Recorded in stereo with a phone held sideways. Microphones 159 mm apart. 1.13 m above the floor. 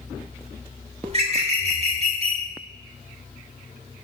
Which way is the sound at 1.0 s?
40° right (ahead or behind).